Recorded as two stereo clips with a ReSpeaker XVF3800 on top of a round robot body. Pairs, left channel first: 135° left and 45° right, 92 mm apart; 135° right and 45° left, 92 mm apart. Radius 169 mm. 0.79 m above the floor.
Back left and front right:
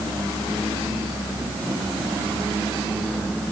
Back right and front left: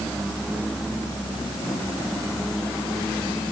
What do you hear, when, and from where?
Only background noise.